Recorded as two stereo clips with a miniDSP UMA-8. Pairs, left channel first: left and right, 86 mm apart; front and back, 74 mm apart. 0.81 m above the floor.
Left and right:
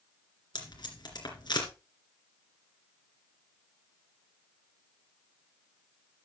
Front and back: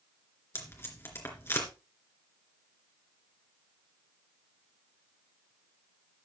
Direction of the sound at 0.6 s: 55° left.